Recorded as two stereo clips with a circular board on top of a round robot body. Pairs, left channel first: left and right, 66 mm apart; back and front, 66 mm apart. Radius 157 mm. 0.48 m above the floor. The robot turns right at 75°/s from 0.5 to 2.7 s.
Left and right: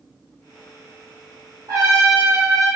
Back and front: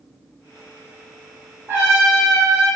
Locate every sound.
1.7 s a trumpet: 65° right, 1.7 m; by 2.7 s 10° left, 1.7 m